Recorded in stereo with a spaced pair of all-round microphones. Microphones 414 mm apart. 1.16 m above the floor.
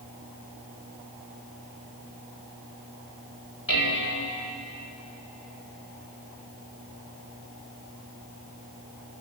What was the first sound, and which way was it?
Dishes clattering, 50° left (ahead or behind).